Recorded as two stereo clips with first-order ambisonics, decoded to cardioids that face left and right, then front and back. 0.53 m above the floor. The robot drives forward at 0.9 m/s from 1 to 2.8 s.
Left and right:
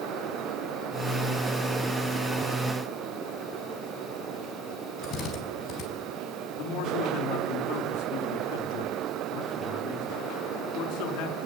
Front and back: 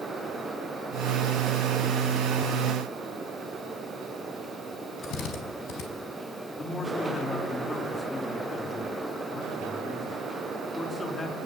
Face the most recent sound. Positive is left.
turn(degrees=75)